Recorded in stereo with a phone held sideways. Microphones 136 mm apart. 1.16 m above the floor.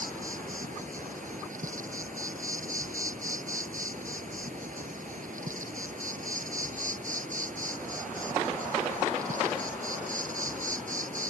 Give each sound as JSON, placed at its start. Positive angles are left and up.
{"t": 0.0, "sound": "an insect", "side_deg": -75}